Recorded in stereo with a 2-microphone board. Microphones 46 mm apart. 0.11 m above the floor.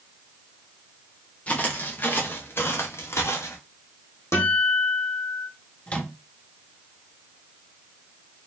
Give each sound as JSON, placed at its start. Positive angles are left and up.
{"t": 1.5, "sound": "footsteps", "side_deg": 25, "distance_m": 1.5}
{"t": 4.3, "sound": "a guitar", "side_deg": 60, "distance_m": 2.0}
{"t": 5.9, "sound": "a microwave", "side_deg": 25, "distance_m": 1.1}